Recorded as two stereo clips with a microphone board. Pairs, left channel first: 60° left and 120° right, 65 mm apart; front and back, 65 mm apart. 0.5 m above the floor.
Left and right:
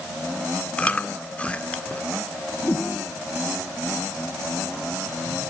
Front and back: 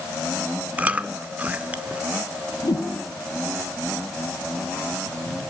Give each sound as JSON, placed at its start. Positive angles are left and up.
{"t": 0.8, "sound": "chewing", "azimuth_deg": 120, "distance_m": 1.2}
{"t": 2.6, "sound": "a whoosh", "azimuth_deg": 5, "distance_m": 5.0}